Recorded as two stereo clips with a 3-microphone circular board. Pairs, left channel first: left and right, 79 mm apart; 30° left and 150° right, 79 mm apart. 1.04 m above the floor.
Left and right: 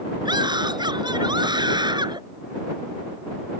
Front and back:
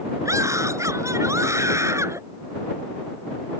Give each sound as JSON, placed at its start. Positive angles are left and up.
{"t": 0.2, "sound": "a scream", "azimuth_deg": -105}